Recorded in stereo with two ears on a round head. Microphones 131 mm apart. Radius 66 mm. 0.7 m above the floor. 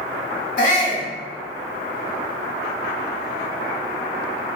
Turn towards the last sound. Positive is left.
turn(degrees=55)  # may be behind; listen again after turning